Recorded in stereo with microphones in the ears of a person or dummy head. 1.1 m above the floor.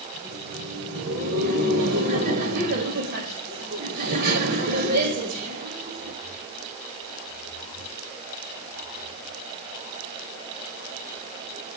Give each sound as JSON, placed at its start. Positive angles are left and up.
{"t": 0.1, "sound": "laughter", "side_deg": -55, "distance_m": 2.0}